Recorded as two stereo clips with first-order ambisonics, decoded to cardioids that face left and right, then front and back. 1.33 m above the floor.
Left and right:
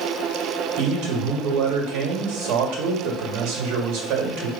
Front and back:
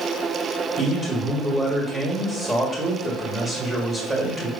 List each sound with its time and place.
0.8 s a man speaking: 105° right, 1.4 m